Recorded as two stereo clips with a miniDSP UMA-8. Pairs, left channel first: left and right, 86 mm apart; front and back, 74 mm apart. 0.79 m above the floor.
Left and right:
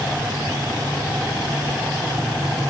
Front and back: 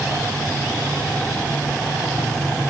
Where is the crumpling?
No crumpling in this recording.